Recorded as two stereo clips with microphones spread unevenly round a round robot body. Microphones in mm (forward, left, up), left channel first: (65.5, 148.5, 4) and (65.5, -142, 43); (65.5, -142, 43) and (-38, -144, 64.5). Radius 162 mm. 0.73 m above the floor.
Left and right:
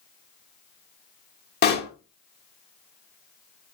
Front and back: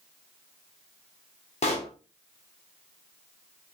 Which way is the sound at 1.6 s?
30° left.